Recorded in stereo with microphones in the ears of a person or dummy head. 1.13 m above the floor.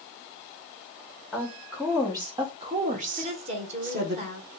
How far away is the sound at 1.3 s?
About 1.1 m.